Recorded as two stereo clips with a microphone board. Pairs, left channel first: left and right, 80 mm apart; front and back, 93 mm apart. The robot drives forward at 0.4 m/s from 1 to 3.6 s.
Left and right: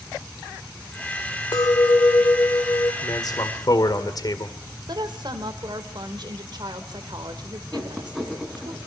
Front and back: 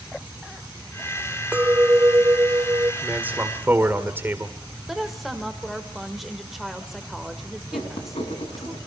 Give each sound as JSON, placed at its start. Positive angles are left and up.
{"t": 1.5, "sound": "a clink", "azimuth_deg": 110, "distance_m": 1.5}
{"t": 3.0, "sound": "a man speaking", "azimuth_deg": 110, "distance_m": 1.9}
{"t": 4.9, "sound": "a woman speaking", "azimuth_deg": -90, "distance_m": 2.0}
{"t": 7.7, "sound": "writing", "azimuth_deg": 0, "distance_m": 3.0}